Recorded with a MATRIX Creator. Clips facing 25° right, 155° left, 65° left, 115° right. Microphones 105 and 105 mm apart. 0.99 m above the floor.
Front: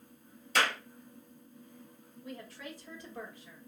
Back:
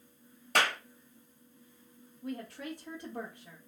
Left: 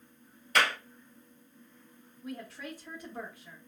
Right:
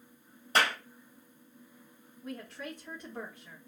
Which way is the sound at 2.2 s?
145° left.